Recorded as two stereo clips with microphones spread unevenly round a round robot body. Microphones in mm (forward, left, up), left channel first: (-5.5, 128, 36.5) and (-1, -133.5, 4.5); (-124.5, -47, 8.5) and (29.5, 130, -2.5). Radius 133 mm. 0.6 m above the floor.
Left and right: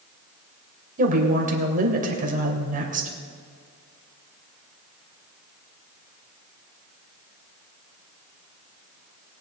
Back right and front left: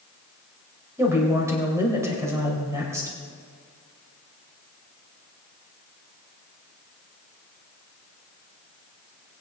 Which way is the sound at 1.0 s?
30° right.